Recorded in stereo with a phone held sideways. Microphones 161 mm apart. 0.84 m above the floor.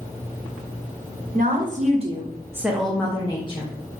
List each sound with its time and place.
1.3 s a woman speaking: 60° right (ahead or behind), 0.9 m; by 3.7 s 35° left (ahead or behind), 0.8 m